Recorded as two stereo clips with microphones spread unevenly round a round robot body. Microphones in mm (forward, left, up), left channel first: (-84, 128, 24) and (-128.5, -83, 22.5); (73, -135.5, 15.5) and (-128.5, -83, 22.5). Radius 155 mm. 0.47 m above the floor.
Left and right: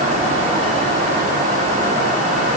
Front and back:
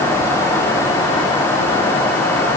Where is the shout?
No shout in this recording.